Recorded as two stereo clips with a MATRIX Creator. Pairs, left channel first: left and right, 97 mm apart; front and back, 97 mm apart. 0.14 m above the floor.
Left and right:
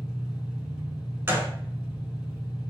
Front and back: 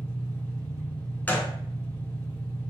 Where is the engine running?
15° right, 1.8 m.